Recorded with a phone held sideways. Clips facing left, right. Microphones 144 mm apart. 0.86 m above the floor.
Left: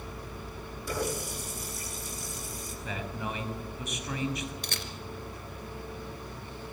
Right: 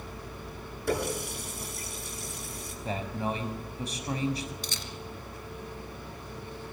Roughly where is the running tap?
Right.